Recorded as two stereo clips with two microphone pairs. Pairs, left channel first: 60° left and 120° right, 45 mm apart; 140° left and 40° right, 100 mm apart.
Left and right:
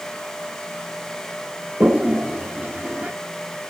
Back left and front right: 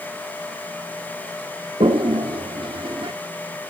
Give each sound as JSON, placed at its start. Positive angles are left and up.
{"t": 1.8, "sound": "a toilet flushing", "azimuth_deg": -65, "distance_m": 0.7}